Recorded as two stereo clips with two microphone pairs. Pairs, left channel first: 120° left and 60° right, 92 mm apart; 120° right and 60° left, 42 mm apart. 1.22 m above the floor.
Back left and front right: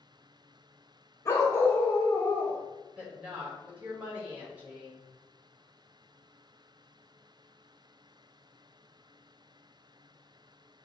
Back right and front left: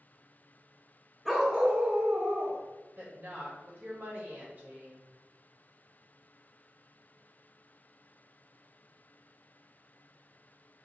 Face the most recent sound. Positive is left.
turn(degrees=15)